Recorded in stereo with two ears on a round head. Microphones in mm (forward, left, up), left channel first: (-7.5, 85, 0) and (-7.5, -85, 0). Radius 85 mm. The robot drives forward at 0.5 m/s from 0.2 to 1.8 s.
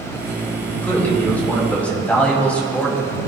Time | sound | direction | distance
0.8 | a man speaking | 10° left (ahead or behind) | 4 m